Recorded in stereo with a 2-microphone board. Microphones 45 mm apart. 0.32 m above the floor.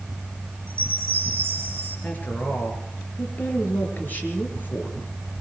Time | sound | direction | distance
0.7 | a chime | 60° right (ahead or behind) | 6 m
2.0 | a woman speaking | 45° left (ahead or behind) | 5.5 m